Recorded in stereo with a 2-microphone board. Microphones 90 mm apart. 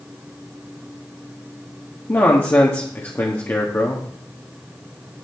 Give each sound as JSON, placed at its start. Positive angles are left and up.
{"t": 2.1, "sound": "a man speaking", "side_deg": 30, "distance_m": 1.3}